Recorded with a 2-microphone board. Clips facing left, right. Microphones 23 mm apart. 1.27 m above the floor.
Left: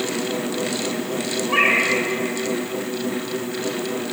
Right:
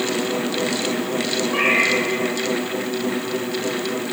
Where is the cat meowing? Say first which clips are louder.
Left 1 dB; 75° left (ahead or behind), 1.8 m.